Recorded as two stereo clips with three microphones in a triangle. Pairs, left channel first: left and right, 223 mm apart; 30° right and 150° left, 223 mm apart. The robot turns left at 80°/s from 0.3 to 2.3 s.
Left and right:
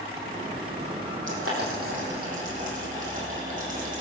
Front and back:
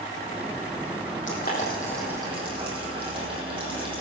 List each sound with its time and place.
1.3 s boiling: 60° right, 6 m; by 4.0 s 145° right, 6 m